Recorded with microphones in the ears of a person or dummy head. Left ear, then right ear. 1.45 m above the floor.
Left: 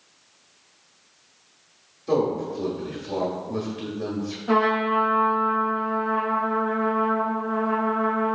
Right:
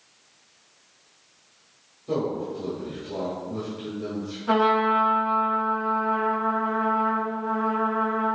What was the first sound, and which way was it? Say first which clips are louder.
A man speaking: left 4 dB; 75° left (ahead or behind).